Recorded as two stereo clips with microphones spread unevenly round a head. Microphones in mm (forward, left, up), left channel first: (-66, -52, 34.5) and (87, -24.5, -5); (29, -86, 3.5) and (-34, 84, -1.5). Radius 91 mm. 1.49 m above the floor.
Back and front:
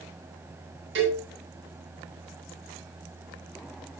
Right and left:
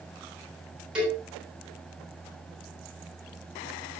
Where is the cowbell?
25° left, 7.5 m.